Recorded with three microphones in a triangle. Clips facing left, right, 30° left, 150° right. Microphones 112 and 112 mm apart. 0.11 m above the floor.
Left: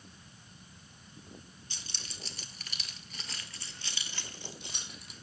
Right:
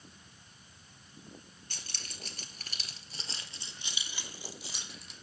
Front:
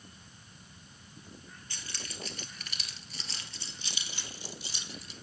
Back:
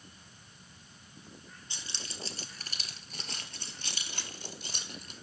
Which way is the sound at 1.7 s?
85° right.